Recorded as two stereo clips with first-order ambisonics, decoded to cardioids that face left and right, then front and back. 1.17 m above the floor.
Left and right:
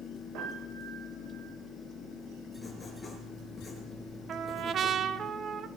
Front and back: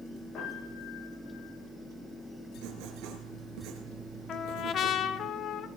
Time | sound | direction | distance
0.3 | a piano | 55° right | 9.5 m
2.6 | writing | 170° left | 3.5 m
4.3 | a trumpet | 40° right | 0.7 m